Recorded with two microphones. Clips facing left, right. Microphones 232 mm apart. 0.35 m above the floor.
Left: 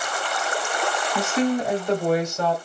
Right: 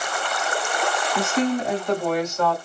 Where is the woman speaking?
5° left (ahead or behind), 2.0 m; by 2.5 s 30° left (ahead or behind), 2 m.